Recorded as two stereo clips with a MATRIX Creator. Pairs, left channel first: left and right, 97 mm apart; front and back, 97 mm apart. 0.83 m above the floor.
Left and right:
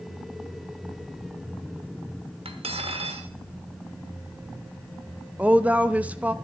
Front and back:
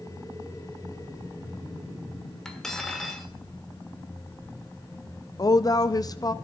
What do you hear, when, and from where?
2.5 s cutlery clinking: 85° right, 1.3 m
5.4 s a woman speaking: 20° right, 0.6 m